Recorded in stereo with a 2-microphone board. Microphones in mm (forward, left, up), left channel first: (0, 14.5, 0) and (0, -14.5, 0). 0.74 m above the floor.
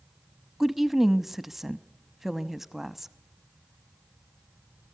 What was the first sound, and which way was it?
A woman speaking, 10° right (ahead or behind).